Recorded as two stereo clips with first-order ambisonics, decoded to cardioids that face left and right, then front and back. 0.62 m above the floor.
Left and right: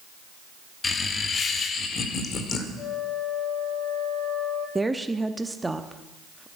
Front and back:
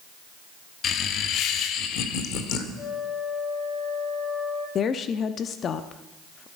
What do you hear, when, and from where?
0.8 s laughter: 30° left, 0.9 m
2.8 s a flute: 50° left, 9.5 m
4.8 s a woman speaking: 10° right, 0.7 m